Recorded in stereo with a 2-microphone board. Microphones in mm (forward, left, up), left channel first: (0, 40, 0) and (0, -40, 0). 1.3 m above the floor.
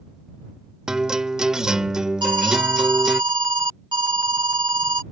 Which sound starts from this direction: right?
An alarm, at 2.2 s.